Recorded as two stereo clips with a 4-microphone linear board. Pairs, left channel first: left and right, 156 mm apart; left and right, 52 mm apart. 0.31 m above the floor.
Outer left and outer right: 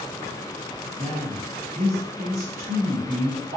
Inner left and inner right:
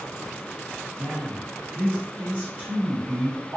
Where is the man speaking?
35° right (ahead or behind), 1.6 m.